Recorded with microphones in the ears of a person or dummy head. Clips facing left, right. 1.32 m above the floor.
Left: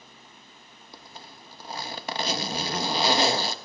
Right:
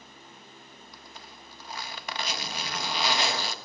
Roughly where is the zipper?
Left.